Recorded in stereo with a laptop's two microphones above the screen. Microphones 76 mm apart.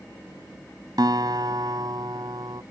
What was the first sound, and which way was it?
A guitar, 70° right (ahead or behind).